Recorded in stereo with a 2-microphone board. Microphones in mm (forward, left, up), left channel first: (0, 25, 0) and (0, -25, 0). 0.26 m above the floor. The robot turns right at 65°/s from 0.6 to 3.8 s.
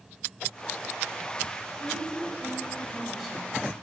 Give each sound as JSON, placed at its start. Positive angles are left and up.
{"t": 1.8, "sound": "a woman speaking", "azimuth_deg": -100, "distance_m": 2.0}